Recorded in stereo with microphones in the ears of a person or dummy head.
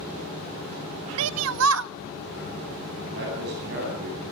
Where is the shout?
65° right (ahead or behind), 0.6 m.